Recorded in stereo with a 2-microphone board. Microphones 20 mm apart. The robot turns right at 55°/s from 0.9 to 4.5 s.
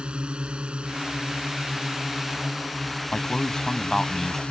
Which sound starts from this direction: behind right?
A drone, at 0.0 s.